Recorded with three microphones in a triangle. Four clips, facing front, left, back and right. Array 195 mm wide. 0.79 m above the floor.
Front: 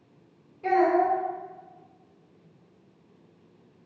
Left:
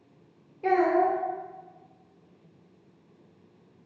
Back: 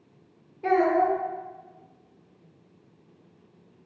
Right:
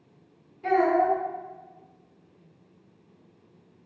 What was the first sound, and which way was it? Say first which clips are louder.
A child speaking: right 1 dB, even; 135° left.